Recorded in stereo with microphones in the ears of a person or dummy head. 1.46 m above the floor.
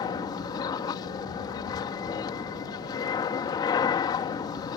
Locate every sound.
0.0 s an aircraft: 20° left (ahead or behind)